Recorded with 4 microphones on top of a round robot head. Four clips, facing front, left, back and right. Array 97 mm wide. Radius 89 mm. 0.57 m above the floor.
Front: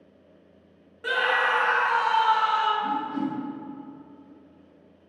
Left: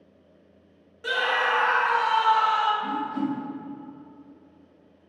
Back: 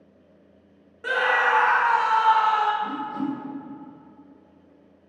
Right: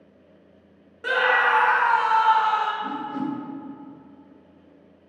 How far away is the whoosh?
About 1.5 m.